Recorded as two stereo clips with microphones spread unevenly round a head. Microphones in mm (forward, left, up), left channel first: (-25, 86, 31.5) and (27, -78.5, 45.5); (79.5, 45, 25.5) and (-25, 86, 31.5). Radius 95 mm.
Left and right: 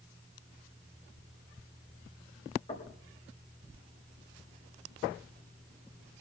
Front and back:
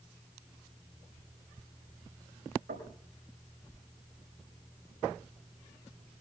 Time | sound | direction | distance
2.7 | knocking | 165° left | 4.5 m